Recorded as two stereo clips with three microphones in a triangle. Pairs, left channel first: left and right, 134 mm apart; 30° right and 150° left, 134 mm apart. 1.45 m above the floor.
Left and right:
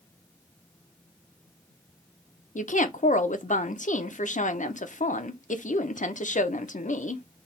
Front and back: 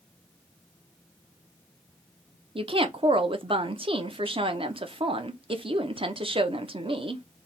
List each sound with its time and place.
2.5 s a woman speaking: 105° left, 0.6 m